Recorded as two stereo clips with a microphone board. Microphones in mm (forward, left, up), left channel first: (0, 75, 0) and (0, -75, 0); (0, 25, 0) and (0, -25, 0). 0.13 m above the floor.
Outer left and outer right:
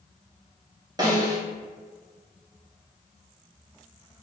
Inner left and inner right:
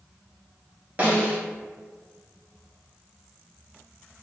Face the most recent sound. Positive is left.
turn(degrees=-25)  # may be behind; listen again after turning